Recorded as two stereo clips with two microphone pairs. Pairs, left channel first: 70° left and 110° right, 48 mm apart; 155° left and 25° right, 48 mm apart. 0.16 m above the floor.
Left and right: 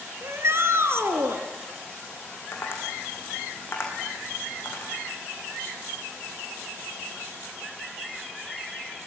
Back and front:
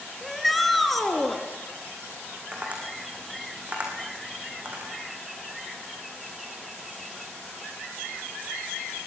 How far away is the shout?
About 2.5 m.